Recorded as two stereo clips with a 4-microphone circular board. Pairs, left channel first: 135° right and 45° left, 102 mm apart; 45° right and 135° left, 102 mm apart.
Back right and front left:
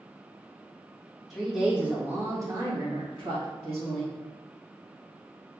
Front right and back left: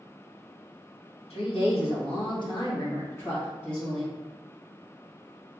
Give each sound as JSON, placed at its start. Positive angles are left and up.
{"t": 1.3, "sound": "a woman speaking", "azimuth_deg": -45, "distance_m": 1.5}